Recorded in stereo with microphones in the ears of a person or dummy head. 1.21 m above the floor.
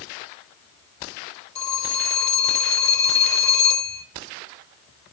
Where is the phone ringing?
30° left (ahead or behind), 3 m.